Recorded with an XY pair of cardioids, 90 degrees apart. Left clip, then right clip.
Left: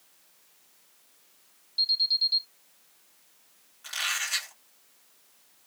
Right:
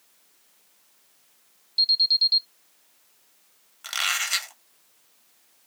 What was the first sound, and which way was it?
An alarm, 45° right.